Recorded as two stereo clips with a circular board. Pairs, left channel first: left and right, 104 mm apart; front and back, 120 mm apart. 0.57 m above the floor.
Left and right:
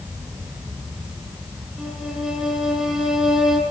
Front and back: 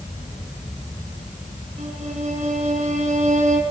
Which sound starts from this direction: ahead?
An insect, at 0.0 s.